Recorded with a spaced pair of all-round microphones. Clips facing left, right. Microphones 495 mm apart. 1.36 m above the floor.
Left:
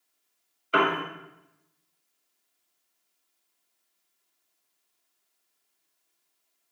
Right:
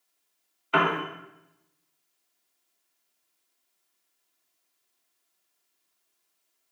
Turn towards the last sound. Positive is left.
turn(degrees=-15)  # may be behind; listen again after turning